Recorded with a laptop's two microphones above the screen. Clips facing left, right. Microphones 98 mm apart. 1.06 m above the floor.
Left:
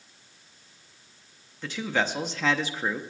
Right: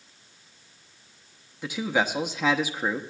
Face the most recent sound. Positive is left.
turn(degrees=-15)  # may be behind; listen again after turning